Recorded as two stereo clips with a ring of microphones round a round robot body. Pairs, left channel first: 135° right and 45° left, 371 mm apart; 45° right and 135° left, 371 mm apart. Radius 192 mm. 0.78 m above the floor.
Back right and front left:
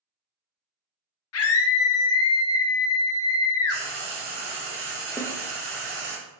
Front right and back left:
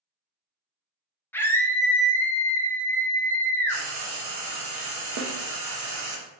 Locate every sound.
1.3 s a scream: 125° right, 0.6 m
3.7 s frying: 105° left, 1.3 m
5.2 s a snare drum: 125° left, 0.6 m